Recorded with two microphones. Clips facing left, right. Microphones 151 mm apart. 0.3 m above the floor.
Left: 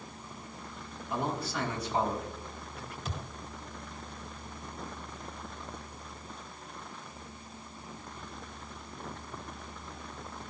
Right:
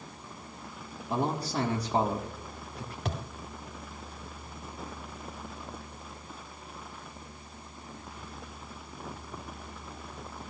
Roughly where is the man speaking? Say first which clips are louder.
Right 3 dB; right.